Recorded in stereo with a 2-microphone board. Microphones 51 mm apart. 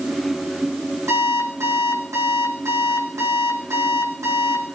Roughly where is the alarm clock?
Right.